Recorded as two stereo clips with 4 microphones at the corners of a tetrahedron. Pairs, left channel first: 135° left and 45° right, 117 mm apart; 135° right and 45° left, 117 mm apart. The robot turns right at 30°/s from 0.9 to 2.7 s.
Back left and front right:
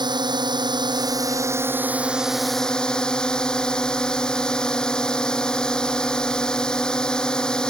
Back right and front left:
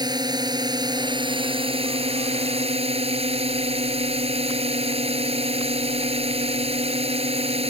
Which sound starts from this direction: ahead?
A drone, at 0.0 s.